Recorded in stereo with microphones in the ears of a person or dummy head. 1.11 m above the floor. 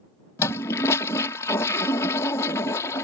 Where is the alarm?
No alarm in this recording.